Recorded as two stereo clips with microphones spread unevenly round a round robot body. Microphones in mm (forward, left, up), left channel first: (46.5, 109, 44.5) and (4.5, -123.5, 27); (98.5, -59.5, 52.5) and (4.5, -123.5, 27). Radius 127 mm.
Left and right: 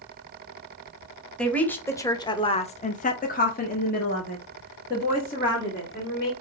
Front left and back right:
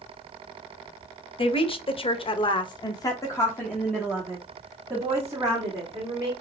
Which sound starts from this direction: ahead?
A woman speaking, at 1.4 s.